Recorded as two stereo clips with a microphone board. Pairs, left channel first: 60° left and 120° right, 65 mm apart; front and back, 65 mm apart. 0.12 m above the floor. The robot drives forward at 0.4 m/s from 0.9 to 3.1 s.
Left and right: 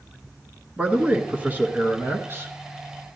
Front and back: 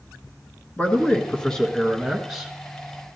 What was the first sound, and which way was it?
A man speaking, 60° right.